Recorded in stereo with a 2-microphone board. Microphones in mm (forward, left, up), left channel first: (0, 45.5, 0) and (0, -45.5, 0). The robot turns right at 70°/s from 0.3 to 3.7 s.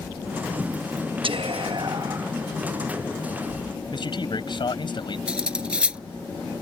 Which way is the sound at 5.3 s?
10° right (ahead or behind).